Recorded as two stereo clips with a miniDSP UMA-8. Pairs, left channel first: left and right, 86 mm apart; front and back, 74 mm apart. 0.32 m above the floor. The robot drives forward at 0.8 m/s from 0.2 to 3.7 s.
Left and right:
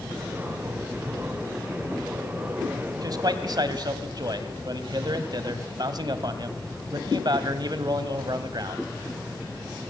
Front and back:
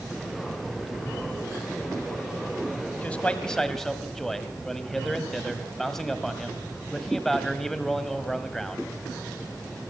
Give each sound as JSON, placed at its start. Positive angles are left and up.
{"t": 3.0, "sound": "a man speaking", "azimuth_deg": -65, "distance_m": 2.0}